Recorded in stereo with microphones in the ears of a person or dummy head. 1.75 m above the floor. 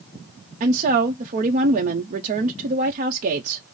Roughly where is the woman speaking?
Right.